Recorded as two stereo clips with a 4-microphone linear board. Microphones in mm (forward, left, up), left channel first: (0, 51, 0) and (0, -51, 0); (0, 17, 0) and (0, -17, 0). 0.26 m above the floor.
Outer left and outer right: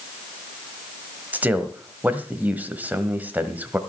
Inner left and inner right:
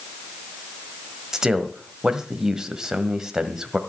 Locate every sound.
1.3 s a man speaking: 15° right (ahead or behind), 1.4 m